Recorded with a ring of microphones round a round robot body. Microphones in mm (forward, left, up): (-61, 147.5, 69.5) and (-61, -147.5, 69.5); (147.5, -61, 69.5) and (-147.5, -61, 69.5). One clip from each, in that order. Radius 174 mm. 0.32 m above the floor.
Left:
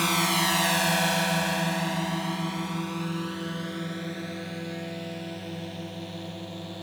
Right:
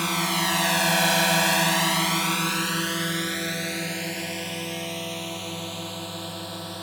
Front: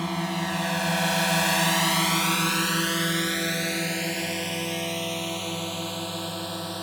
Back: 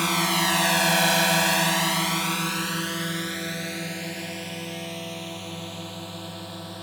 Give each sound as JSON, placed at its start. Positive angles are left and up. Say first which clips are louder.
{"t": 0.0, "sound": "a drone", "louder": "even, back 7 dB", "azimuth_deg": 175}